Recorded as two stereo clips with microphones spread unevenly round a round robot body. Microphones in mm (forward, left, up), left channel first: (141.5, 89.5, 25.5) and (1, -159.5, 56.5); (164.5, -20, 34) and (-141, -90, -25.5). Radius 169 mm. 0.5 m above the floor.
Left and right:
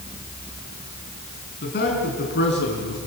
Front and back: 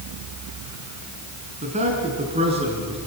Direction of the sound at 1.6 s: 120° left.